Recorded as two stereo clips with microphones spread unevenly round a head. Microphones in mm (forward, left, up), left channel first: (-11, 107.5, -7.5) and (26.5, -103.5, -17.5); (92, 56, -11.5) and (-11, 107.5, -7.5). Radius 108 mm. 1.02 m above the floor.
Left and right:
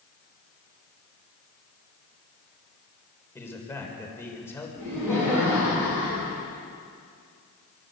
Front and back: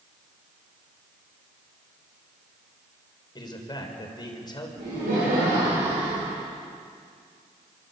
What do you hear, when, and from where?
3.4 s a man speaking: 20° left, 4 m
4.8 s laughter: 155° right, 9 m